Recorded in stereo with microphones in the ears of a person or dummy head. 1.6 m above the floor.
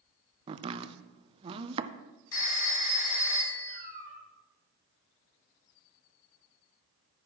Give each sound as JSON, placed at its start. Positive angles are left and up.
{"t": 0.5, "sound": "chopping", "side_deg": -30, "distance_m": 0.6}
{"t": 2.3, "sound": "a phone ringing", "side_deg": 80, "distance_m": 5.5}
{"t": 3.7, "sound": "a cat meowing", "side_deg": 40, "distance_m": 6.5}